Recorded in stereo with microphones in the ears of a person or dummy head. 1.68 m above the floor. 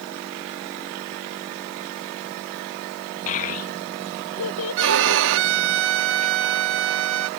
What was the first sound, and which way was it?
A child speaking, 40° left (ahead or behind).